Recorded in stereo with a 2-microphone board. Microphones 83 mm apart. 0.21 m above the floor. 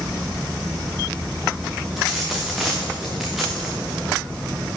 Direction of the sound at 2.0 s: Centre (ahead or behind).